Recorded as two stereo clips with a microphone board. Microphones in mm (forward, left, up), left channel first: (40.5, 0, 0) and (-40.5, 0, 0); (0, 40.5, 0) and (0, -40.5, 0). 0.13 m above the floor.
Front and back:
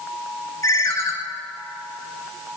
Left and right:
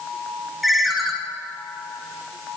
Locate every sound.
0.6 s a ringtone: straight ahead, 1.2 m